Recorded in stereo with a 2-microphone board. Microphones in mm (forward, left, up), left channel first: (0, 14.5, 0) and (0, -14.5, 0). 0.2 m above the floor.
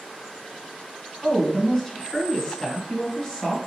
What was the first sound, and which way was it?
A woman speaking, 20° left (ahead or behind).